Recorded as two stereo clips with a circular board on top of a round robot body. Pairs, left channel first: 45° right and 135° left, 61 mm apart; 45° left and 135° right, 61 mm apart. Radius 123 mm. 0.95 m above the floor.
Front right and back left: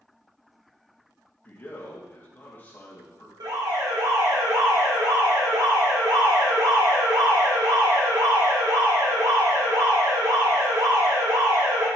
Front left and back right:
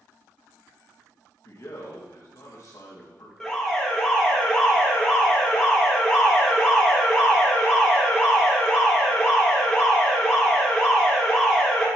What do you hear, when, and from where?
1.4 s a man speaking: 15° left, 2.5 m
3.4 s an alarm: 130° left, 1.9 m